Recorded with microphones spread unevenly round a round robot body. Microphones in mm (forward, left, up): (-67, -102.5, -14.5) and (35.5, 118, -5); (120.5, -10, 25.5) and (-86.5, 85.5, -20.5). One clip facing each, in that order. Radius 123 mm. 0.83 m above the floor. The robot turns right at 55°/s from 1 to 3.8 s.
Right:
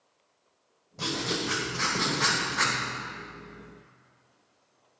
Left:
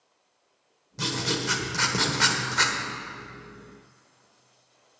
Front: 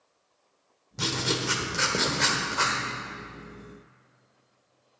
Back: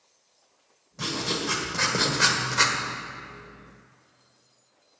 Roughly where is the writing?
Ahead.